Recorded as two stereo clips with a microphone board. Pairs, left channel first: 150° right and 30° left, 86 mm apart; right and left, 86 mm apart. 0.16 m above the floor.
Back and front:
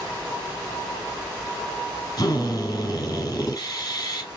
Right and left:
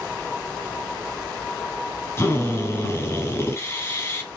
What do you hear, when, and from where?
2.2 s a drill: 135° right, 2.5 m